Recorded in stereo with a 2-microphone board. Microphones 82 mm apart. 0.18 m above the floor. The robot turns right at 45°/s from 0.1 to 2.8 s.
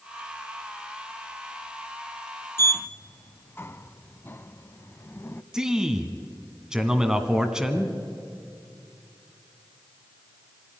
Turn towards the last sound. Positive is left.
turn(degrees=-10)  # may be behind; listen again after turning